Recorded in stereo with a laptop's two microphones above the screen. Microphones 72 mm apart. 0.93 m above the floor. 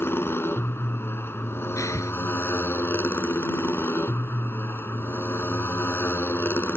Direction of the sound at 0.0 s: 35° left (ahead or behind).